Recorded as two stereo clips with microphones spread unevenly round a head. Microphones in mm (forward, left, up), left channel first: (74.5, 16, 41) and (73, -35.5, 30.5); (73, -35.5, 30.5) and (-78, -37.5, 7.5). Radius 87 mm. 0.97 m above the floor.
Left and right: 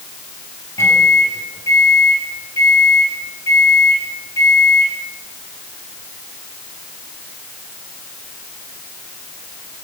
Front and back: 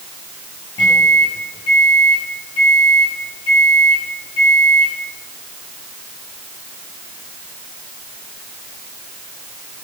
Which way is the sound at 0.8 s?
65° left.